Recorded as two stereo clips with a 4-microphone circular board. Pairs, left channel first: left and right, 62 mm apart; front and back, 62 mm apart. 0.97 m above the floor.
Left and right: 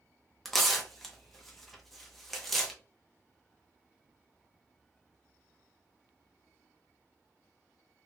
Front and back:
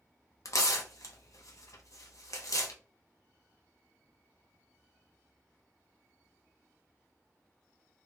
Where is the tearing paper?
5° left, 0.8 m.